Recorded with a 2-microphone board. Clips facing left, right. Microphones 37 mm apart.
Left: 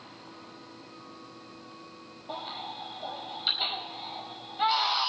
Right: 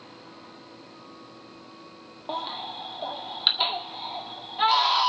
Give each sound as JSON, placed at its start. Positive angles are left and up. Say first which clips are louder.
{"t": 2.3, "sound": "a baby crying", "louder": "right 5 dB", "side_deg": -60, "distance_m": 1.6}